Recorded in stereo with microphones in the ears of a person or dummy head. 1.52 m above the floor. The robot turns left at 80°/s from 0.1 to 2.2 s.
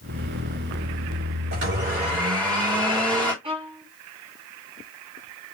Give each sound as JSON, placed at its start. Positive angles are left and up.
{"t": 1.5, "sound": "a blender", "azimuth_deg": -105, "distance_m": 3.0}
{"t": 3.4, "sound": "a violin", "side_deg": -30, "distance_m": 1.2}